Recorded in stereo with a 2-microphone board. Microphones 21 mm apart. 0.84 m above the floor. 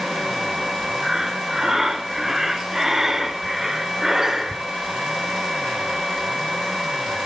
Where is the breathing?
20° right (ahead or behind), 1.9 m.